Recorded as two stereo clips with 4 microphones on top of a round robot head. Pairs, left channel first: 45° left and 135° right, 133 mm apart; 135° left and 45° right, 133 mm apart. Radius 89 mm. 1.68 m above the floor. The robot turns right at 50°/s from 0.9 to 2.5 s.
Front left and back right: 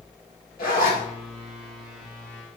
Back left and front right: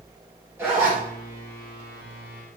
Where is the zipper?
25° left, 3.5 m; by 1.0 s 30° left, 3.5 m.